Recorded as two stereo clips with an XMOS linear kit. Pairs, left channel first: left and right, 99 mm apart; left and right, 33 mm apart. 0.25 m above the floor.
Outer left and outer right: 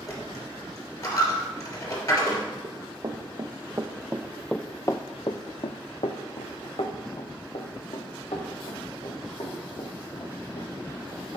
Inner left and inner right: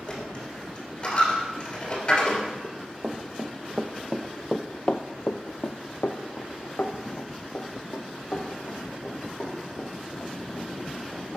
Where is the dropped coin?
35° left (ahead or behind), 2.5 m.